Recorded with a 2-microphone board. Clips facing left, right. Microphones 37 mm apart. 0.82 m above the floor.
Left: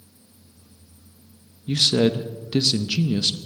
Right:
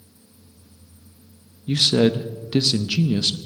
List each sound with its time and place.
1.7 s a man speaking: 5° right (ahead or behind), 0.6 m